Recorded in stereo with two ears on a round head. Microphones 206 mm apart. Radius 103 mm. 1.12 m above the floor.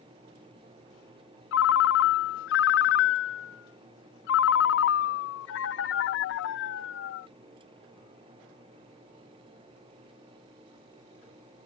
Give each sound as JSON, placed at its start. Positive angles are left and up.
{"t": 1.5, "sound": "a ringtone", "side_deg": 55}